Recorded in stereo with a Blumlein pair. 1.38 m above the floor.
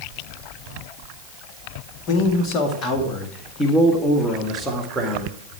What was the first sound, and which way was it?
A man speaking, 35° left.